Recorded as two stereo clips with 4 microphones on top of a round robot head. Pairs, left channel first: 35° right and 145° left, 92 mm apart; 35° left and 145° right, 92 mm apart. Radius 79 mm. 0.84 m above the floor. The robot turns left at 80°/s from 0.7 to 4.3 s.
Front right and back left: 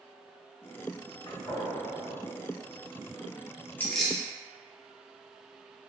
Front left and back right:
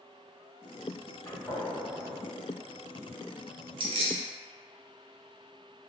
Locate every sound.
1.2 s a gunshot: 5° right, 1.5 m; by 2.1 s 75° right, 1.5 m
3.8 s keys jangling: 110° right, 0.6 m; by 4.2 s 145° right, 0.6 m